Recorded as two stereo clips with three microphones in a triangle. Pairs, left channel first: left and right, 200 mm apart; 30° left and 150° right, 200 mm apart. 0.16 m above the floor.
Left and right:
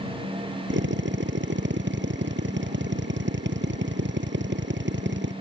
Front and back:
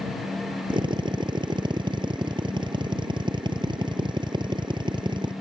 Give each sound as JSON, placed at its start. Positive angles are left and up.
{"t": 0.7, "sound": "a drill", "azimuth_deg": -85}